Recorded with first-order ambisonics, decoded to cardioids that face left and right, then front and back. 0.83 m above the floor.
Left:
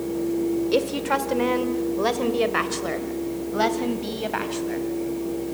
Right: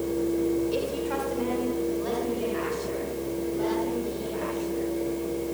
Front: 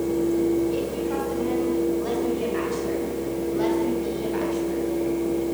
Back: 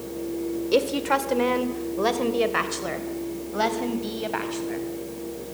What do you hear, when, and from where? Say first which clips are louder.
0.7 s a woman speaking: left 6 dB, back 4 dB; 145° left, 2 m; by 4.9 s 120° left, 4.5 m